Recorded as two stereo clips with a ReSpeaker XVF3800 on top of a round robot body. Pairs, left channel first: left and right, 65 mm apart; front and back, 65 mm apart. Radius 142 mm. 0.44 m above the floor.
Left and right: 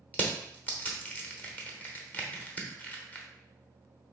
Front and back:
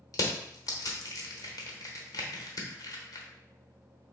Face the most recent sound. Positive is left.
turn(degrees=30)